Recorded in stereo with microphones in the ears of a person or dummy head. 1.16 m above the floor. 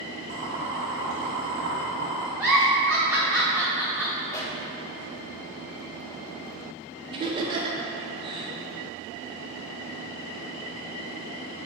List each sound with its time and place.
0.3 s boiling: 45° right (ahead or behind), 1.5 m
2.4 s a giggle: 5° right (ahead or behind), 0.9 m
4.3 s a pop: 15° left (ahead or behind), 1.0 m
7.1 s laughter: 20° right (ahead or behind), 0.6 m